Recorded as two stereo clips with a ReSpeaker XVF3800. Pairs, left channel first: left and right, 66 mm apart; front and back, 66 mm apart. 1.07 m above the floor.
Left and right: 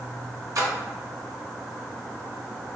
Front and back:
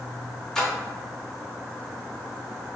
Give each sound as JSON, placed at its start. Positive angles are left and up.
{"t": 0.6, "sound": "a splash", "azimuth_deg": -85, "distance_m": 1.1}